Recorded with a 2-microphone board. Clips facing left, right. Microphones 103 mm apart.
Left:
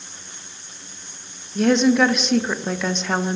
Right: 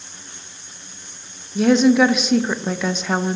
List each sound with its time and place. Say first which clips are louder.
1.6 s a woman speaking: right 2 dB; 5° right (ahead or behind), 0.6 m